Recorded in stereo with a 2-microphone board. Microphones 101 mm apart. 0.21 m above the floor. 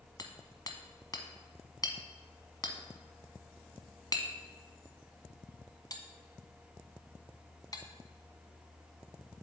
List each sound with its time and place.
0.2 s hammering: 40° left (ahead or behind), 0.9 m